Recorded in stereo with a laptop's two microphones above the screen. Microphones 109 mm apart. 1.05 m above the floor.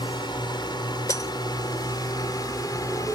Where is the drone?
45° left (ahead or behind); by 3.1 s 35° left (ahead or behind).